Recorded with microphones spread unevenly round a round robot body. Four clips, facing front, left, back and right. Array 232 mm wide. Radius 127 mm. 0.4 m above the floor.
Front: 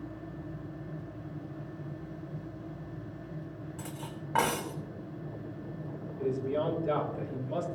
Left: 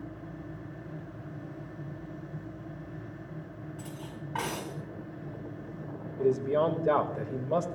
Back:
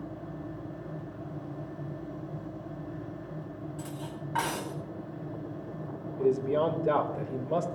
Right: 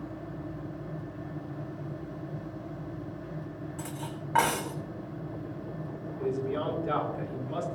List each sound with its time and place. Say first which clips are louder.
3.8 s cutlery clinking: right 4 dB, back 3 dB; 35° right, 1.5 m
6.2 s a man speaking: left 5 dB, back 5 dB; 130° left, 1.5 m